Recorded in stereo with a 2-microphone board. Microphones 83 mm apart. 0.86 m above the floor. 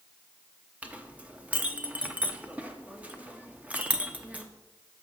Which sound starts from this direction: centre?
A clink, at 0.8 s.